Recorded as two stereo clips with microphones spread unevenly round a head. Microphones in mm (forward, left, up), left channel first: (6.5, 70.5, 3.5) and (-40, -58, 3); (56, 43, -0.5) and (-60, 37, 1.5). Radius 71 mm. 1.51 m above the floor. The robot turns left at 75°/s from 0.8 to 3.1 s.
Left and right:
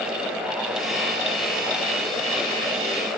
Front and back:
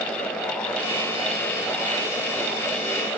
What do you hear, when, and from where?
Only background noise.